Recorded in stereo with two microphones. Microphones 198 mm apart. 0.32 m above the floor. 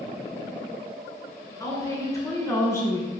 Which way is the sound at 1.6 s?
15° left (ahead or behind).